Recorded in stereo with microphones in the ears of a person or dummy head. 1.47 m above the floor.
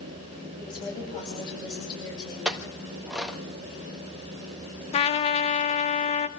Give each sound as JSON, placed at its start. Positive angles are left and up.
{"t": 0.6, "sound": "a woman speaking", "side_deg": 25, "distance_m": 10.0}
{"t": 2.5, "sound": "a clink", "side_deg": -5, "distance_m": 1.5}
{"t": 4.9, "sound": "a trumpet", "side_deg": 35, "distance_m": 1.4}